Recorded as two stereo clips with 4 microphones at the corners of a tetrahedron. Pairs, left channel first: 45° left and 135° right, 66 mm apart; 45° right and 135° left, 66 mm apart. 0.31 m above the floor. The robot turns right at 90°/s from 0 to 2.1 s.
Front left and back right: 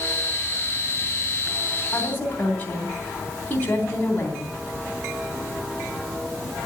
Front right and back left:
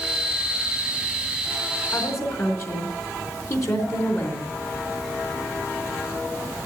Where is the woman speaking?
25° right, 3 m; by 4.5 s 10° right, 3 m.